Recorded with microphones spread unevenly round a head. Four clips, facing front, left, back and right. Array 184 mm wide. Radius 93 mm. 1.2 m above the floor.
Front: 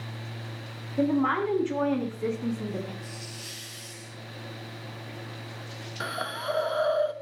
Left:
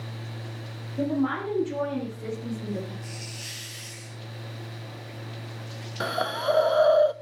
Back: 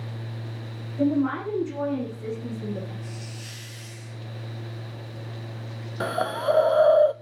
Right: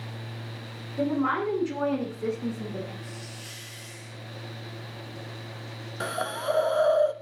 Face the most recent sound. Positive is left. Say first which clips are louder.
# left 3 dB, back 8 dB
turn(degrees=160)